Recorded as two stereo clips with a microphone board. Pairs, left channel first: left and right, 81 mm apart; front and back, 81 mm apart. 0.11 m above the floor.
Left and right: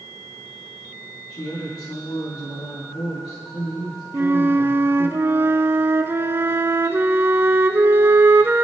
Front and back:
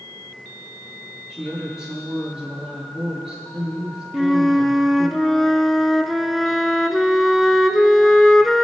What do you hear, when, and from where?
1.3 s a woman speaking: 95° left, 7 m
4.1 s a flute: 90° right, 0.7 m